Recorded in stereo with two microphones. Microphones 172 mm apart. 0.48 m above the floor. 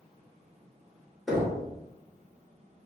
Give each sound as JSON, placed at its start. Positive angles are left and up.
{"t": 1.3, "sound": "knocking", "side_deg": 0, "distance_m": 1.0}